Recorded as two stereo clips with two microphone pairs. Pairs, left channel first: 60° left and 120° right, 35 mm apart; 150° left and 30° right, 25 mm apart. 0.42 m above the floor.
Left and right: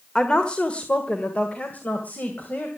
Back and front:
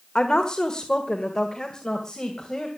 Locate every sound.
0.1 s a woman speaking: 115° left, 1.5 m; by 2.7 s 85° left, 2.5 m